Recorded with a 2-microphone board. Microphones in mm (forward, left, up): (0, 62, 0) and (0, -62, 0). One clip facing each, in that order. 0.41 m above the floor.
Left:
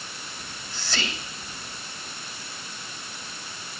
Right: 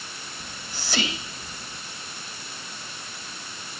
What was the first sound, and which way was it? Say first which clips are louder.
Whispering: right 1 dB; 15° right (ahead or behind).